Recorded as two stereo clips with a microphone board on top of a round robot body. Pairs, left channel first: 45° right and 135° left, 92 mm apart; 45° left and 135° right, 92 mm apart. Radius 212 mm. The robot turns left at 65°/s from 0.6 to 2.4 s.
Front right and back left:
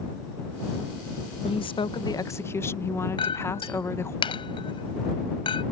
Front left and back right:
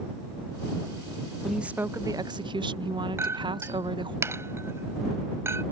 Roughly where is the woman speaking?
Ahead right.